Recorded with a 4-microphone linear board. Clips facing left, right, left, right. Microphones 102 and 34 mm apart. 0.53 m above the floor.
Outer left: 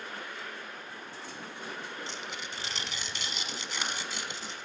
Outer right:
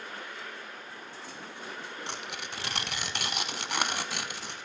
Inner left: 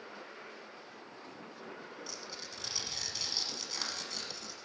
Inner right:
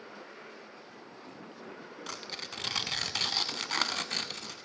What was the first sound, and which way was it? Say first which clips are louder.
Tearing paper: outer right 1 dB, inner right 5 dB; 70° right (ahead or behind).